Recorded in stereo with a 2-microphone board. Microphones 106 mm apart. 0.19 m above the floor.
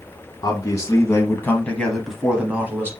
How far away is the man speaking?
About 1.5 m.